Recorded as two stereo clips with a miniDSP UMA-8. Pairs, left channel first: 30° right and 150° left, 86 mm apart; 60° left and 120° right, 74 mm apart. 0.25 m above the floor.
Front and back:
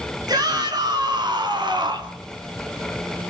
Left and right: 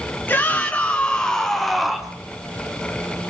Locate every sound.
0.3 s a shout: 120° left, 3 m; by 2.1 s 160° left, 2.5 m